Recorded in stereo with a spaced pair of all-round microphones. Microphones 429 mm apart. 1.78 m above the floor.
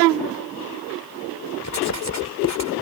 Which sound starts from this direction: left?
Writing, at 1.6 s.